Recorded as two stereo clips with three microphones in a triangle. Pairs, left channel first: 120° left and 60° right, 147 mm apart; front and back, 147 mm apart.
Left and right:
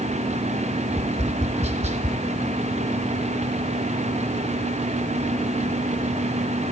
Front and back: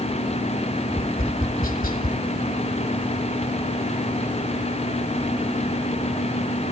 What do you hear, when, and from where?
0.9 s tapping: 20° right, 1.5 m